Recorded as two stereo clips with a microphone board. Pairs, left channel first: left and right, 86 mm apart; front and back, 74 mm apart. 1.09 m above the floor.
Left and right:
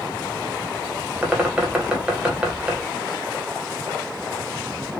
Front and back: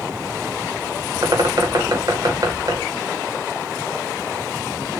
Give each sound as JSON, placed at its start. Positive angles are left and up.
{"t": 1.2, "sound": "a bird", "azimuth_deg": -165, "distance_m": 0.7}